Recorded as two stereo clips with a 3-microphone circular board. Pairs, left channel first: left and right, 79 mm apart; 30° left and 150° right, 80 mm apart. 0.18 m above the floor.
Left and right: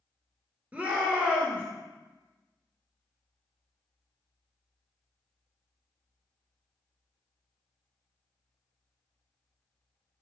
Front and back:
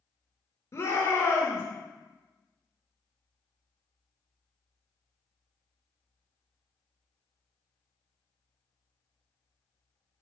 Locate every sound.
0.7 s a shout: 25° right, 2.5 m